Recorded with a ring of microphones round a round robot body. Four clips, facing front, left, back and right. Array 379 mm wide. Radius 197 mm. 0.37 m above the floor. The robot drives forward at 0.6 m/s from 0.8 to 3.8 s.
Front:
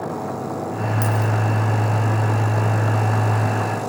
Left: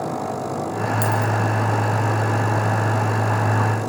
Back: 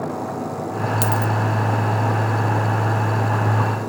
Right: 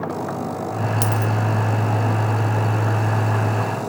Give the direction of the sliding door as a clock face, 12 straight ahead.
I don't hear a sliding door.